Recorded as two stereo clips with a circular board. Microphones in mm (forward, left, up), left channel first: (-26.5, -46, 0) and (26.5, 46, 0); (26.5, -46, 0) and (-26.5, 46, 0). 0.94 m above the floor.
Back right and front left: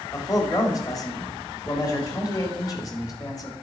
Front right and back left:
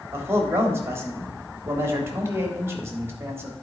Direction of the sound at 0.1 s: 175° right.